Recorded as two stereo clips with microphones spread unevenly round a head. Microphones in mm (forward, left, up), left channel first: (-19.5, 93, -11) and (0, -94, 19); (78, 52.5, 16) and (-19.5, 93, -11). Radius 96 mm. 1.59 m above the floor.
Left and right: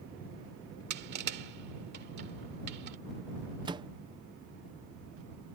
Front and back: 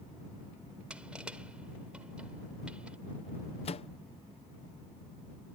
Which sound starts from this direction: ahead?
A microwave, at 3.6 s.